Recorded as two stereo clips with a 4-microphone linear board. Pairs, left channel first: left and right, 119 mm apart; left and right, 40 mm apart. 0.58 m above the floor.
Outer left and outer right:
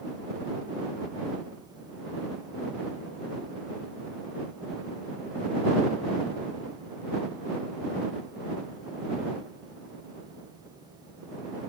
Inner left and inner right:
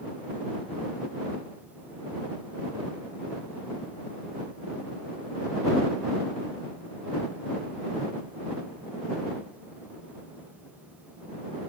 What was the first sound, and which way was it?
Only background noise.